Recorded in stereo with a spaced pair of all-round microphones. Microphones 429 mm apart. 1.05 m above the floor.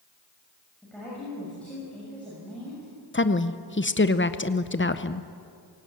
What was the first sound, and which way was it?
A woman speaking, 5° left (ahead or behind).